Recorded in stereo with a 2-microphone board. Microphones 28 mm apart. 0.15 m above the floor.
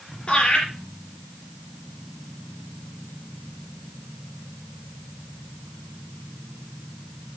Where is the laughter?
35° left (ahead or behind), 4.5 m.